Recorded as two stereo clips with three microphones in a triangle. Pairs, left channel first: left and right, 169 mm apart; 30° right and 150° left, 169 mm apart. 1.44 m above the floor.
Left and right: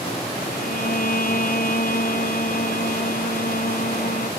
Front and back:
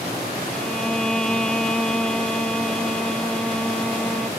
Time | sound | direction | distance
0.5 | a violin | 55° left | ?